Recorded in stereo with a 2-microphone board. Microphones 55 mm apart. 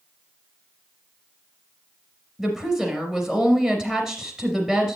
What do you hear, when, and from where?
2.4 s a woman speaking: 15° right (ahead or behind), 3 m